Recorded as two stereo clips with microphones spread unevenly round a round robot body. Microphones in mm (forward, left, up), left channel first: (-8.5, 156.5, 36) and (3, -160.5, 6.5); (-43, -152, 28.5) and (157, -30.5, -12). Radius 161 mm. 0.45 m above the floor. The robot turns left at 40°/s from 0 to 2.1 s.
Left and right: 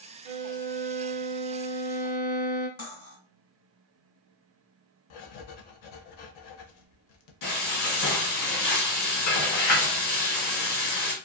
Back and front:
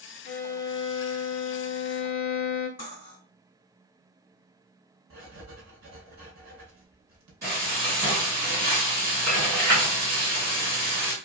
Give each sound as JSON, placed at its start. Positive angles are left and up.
{"t": 0.2, "sound": "a violin", "azimuth_deg": -90, "distance_m": 0.7}
{"t": 2.8, "sound": "cutlery clinking", "azimuth_deg": 150, "distance_m": 1.2}
{"t": 5.1, "sound": "writing", "azimuth_deg": 80, "distance_m": 0.6}
{"t": 7.4, "sound": "frying", "azimuth_deg": 100, "distance_m": 1.3}